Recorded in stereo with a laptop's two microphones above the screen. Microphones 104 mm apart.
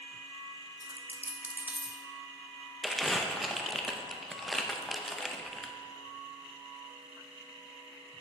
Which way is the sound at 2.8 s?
Centre (ahead or behind).